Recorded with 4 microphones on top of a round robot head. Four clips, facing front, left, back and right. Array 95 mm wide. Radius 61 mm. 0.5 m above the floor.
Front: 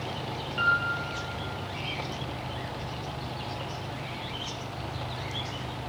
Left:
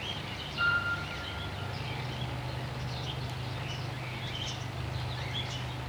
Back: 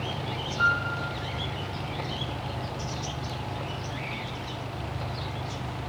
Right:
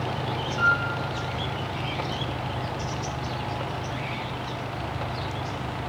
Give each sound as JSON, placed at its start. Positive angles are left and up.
{"t": 0.6, "sound": "a piano", "azimuth_deg": -35, "distance_m": 5.0}